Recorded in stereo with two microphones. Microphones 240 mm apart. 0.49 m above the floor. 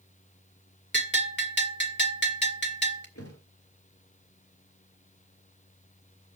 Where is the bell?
50° left (ahead or behind), 1.8 m.